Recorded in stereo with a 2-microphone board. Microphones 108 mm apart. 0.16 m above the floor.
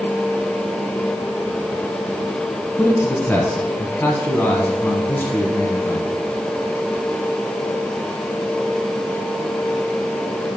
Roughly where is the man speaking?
Centre.